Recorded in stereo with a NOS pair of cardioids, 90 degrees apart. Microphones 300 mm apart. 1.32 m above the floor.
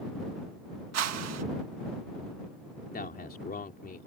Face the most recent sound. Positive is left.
turn(degrees=30)